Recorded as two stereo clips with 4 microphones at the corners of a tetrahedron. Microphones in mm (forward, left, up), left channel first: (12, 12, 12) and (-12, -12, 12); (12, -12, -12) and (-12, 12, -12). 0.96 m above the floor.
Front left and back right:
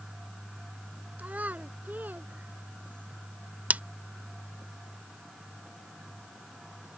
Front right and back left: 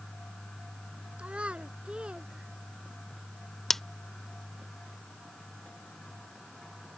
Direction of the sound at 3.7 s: 125° right.